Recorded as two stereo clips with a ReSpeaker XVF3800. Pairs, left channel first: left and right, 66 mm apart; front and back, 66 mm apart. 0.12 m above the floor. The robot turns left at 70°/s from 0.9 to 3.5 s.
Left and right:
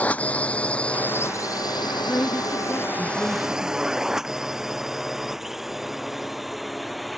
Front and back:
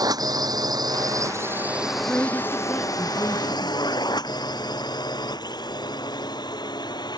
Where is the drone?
160° left; by 7.2 s straight ahead.